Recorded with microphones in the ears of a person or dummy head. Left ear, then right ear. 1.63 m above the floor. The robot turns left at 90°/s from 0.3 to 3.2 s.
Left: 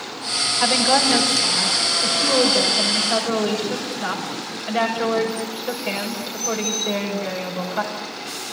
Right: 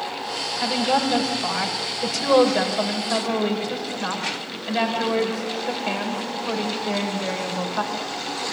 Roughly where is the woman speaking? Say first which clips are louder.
Left 4 dB; ahead left.